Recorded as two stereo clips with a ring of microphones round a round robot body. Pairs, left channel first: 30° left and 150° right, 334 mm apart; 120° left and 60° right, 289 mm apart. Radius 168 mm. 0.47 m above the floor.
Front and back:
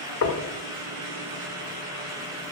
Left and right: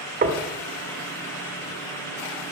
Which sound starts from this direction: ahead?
Knocking, at 0.2 s.